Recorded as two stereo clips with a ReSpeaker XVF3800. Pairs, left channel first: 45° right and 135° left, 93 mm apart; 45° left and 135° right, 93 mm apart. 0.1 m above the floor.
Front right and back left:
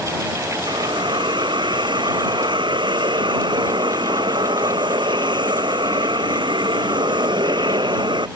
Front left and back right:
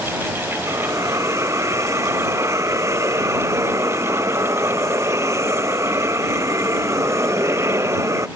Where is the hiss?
170° left.